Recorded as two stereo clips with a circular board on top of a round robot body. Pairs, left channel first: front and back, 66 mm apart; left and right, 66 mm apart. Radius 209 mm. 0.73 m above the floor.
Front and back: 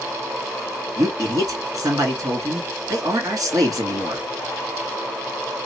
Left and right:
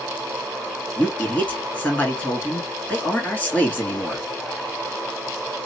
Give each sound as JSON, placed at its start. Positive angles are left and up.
{"t": 1.0, "sound": "a man speaking", "azimuth_deg": 150, "distance_m": 2.0}